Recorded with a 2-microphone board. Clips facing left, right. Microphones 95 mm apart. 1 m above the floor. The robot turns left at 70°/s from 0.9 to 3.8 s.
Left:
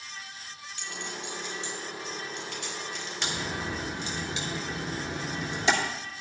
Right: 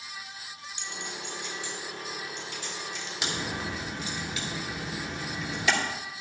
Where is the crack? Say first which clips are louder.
Even; 10° right (ahead or behind), 3 m; by 5.7 s 30° left (ahead or behind), 3 m.